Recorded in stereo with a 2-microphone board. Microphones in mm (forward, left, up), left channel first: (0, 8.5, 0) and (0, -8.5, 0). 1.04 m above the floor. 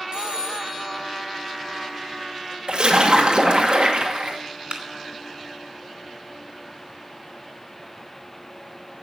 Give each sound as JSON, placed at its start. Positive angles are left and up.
{"t": 0.1, "sound": "a phone ringing", "side_deg": -50, "distance_m": 5.5}
{"t": 2.7, "sound": "a splash", "side_deg": -65, "distance_m": 2.0}
{"t": 4.7, "sound": "a clap", "side_deg": -80, "distance_m": 2.5}